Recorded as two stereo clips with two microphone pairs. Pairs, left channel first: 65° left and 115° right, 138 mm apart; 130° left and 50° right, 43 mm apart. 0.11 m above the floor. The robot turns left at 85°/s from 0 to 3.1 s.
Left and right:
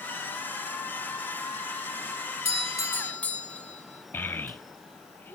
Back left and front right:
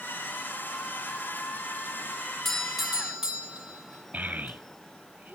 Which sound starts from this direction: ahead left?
A doorbell, at 2.5 s.